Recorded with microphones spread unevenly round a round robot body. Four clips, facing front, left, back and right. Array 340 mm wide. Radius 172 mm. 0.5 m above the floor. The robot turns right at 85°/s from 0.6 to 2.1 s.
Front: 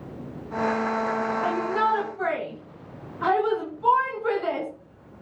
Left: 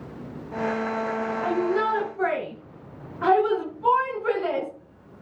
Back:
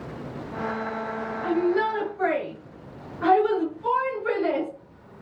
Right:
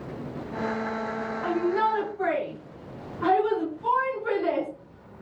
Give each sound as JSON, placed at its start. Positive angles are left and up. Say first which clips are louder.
{"t": 1.4, "sound": "a shout", "louder": "even, back 4 dB", "azimuth_deg": 5, "distance_m": 5.5}